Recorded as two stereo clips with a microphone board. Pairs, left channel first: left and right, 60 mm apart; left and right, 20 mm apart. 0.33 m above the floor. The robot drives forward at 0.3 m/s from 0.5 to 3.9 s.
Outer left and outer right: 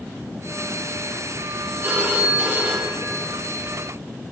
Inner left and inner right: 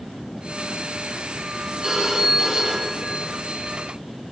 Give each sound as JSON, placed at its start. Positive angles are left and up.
{"t": 1.8, "sound": "a phone ringing", "side_deg": -40, "distance_m": 2.0}